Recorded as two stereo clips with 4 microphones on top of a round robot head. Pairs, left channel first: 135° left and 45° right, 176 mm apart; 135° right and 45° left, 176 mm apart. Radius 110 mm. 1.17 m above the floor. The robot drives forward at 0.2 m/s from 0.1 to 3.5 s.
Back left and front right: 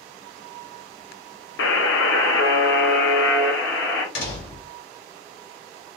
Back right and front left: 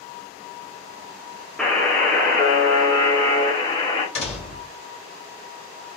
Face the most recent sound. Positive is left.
turn(degrees=170)